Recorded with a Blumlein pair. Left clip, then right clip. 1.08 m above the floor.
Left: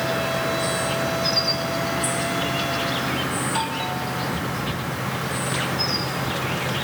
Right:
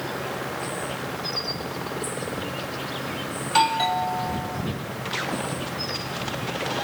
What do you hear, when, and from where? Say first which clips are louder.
0.0 s an insect: left 7 dB; 65° left
3.4 s a doorbell: right 4 dB; 70° right